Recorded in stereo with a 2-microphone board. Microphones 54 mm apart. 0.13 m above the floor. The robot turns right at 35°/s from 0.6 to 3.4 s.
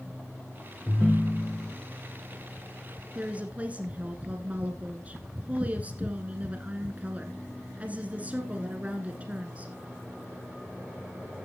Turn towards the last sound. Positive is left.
turn(degrees=-30)  # may be behind; listen again after turning